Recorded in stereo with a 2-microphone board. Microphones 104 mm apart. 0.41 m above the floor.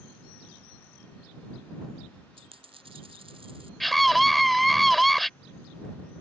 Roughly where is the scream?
Centre.